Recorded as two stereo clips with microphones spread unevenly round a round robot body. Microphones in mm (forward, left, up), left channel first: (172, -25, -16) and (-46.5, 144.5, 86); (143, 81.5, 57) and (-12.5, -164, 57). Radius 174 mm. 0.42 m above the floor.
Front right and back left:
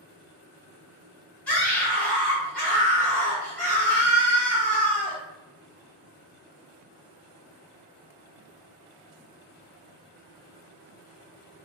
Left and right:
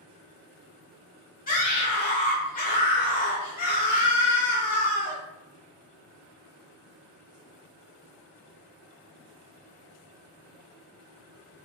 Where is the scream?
15° left, 1.0 m.